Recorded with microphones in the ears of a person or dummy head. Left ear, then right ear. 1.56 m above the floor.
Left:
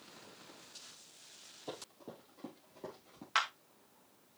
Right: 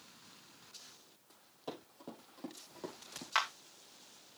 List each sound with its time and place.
1.7 s running footsteps: 45° right (ahead or behind), 5.5 m; by 3.2 s 50° right (ahead or behind), 4.5 m
3.4 s a clap: 5° right (ahead or behind), 1.8 m